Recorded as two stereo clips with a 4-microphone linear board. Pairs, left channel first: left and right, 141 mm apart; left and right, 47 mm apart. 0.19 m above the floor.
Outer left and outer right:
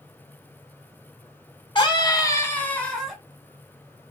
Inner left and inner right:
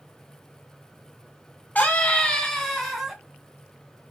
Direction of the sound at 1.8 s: 35° left (ahead or behind).